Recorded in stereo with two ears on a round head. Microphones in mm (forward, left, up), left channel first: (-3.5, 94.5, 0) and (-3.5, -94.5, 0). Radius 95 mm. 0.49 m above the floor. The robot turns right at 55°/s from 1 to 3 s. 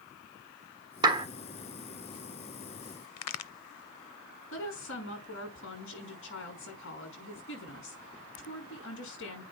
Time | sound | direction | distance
1.0 | a clap | 20° right (ahead or behind) | 1.4 m
3.2 | a crack | 85° left | 0.6 m
4.5 | a woman speaking | 65° left (ahead or behind) | 6 m